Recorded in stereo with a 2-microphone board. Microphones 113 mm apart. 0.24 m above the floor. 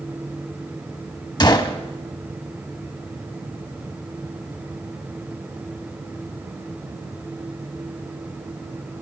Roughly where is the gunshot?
Left.